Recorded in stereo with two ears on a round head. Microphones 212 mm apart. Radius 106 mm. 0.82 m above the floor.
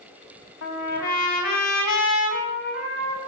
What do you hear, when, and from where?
0.6 s a trumpet: 70° left (ahead or behind), 5 m